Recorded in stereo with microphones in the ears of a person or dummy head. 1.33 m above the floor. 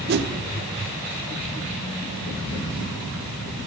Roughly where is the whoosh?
Right.